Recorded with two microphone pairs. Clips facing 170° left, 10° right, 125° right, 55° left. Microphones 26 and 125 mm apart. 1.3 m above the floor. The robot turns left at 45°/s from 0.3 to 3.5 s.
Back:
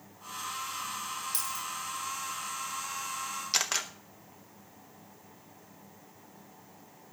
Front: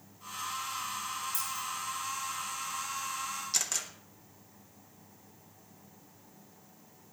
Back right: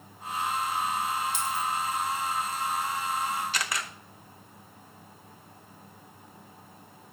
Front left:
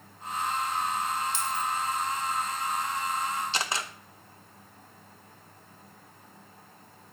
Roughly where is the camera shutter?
Behind left.